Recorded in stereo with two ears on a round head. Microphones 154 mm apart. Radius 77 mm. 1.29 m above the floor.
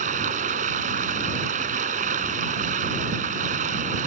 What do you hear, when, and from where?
0.0 s running water: 45° right (ahead or behind)